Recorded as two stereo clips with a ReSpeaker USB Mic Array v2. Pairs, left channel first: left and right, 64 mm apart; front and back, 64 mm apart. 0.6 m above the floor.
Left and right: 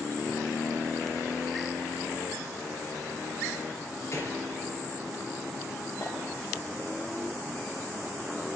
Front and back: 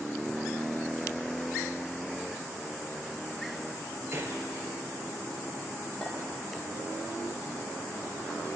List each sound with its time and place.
4.1 s a gunshot: 130° left, 4 m
6.0 s a clink: 80° left, 7 m